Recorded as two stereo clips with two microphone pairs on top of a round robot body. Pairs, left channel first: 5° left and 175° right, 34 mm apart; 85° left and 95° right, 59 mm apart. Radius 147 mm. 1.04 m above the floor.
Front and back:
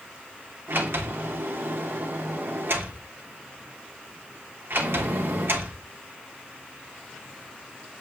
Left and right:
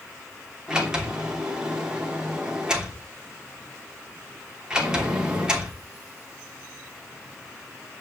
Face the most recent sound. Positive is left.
turn(degrees=-175)